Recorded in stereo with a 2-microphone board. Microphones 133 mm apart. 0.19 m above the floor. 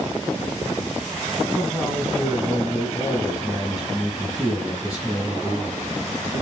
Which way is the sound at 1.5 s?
Centre (ahead or behind).